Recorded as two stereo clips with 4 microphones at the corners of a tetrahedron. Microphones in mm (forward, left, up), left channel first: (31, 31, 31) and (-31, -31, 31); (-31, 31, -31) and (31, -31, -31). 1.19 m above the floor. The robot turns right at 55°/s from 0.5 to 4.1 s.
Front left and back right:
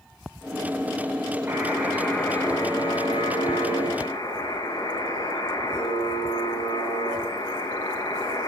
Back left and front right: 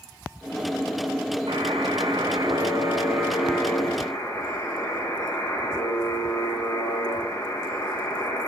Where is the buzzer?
70° right, 10 m; by 8.5 s 75° left, 10 m.